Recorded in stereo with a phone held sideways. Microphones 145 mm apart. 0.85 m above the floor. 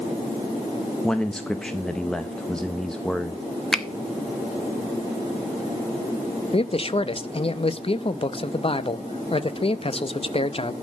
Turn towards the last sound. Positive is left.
turn(degrees=40)  # may be behind; listen again after turning